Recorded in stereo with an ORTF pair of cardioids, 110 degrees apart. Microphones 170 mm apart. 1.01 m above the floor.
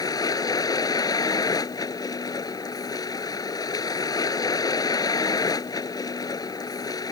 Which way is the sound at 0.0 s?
20° left.